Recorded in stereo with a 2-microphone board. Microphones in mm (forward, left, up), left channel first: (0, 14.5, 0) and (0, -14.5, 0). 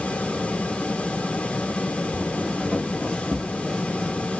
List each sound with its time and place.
2.1 s footsteps: 40° left (ahead or behind), 2 m; by 4.2 s 10° left (ahead or behind), 1.6 m